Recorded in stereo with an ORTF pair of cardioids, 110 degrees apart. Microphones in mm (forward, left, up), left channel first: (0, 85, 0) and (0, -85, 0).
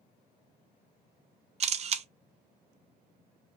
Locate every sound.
1.6 s a camera shutter: 40° right, 0.7 m